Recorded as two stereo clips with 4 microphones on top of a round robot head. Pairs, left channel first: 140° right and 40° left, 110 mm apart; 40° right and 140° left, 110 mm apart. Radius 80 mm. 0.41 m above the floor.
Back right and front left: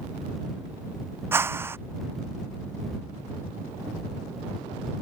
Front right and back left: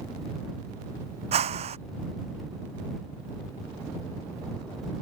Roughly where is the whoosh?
Left.